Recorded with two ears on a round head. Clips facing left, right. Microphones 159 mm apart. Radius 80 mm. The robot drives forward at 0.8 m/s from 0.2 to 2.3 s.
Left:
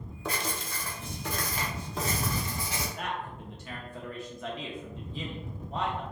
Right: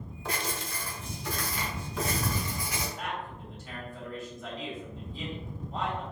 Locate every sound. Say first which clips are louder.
0.2 s writing: left 1 dB; 85° left, 0.8 m; by 2.9 s 25° left (ahead or behind), 1.8 m
3.0 s a man speaking: left 1 dB; 55° left (ahead or behind), 1.0 m